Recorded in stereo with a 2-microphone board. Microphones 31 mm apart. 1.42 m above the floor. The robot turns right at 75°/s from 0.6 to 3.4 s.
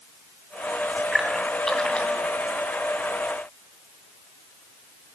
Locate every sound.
1.1 s a splash: 15° right (ahead or behind), 2 m; by 2.3 s 55° left (ahead or behind), 2 m